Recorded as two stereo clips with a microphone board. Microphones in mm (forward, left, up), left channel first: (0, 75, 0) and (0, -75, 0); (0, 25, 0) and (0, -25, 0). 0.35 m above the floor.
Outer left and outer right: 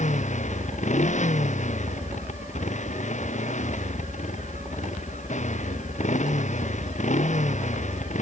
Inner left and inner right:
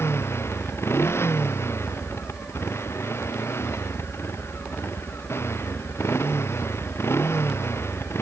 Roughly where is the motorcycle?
Left.